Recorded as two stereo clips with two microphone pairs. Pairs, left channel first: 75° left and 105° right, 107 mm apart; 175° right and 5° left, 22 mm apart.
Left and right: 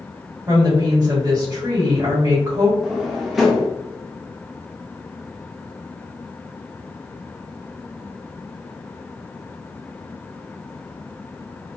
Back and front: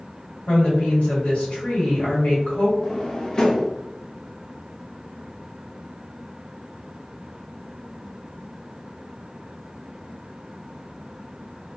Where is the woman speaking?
160° right, 1.7 m.